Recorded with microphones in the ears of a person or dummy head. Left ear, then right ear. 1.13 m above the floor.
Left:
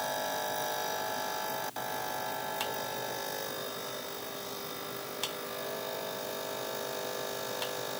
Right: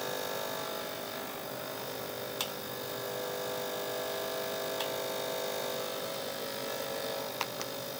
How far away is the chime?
I don't hear a chime.